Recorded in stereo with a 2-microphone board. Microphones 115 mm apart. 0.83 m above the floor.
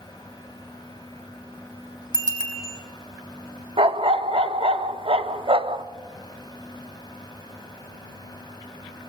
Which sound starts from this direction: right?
A dog barking, at 3.8 s.